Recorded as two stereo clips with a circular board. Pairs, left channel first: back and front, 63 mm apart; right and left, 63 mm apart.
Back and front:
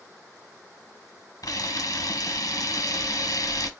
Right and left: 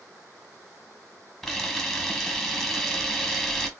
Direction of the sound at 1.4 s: Straight behind.